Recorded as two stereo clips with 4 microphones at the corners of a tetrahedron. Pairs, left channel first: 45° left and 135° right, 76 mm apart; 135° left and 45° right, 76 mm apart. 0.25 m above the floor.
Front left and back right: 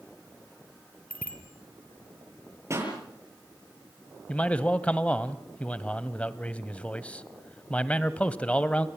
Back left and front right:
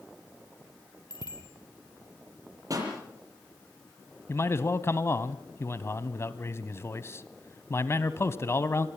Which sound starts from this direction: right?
A pop, at 2.7 s.